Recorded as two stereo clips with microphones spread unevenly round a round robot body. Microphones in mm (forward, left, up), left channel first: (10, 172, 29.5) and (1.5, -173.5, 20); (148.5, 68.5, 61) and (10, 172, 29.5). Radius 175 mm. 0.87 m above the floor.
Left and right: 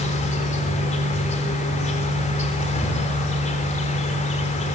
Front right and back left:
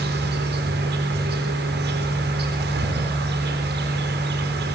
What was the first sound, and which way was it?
An insect, 160° left.